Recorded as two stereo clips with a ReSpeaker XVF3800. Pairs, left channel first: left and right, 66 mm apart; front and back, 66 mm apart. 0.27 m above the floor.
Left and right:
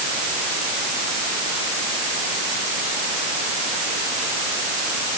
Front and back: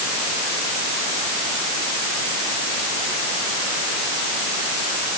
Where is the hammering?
No hammering in this recording.